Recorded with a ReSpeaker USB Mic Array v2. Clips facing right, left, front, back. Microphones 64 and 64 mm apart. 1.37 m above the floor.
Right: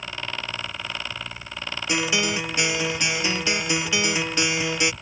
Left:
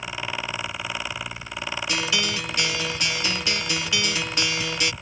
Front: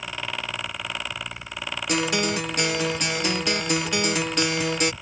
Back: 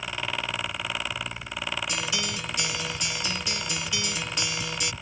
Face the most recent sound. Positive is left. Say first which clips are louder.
# right 4 dB, front 7 dB
turn(degrees=-25)